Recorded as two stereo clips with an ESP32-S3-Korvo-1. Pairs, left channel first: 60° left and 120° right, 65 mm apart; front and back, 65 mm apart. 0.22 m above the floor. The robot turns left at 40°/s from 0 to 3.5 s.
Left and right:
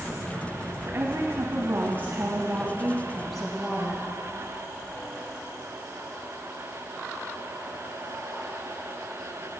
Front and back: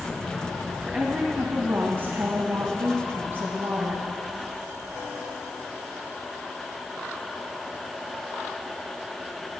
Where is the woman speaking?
110° right, 1.3 m; by 4.1 s 145° left, 1.3 m.